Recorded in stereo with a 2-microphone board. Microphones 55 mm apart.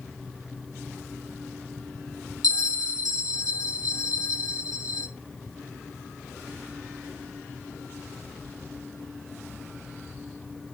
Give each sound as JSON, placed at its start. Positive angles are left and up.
{"t": 2.4, "sound": "a bell", "side_deg": 80, "distance_m": 1.3}